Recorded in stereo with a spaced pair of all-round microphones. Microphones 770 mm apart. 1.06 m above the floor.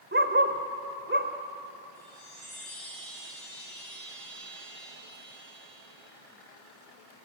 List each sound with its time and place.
0.1 s a dog barking: 15° right (ahead or behind), 1.9 m
1.9 s a chime: 80° left, 10 m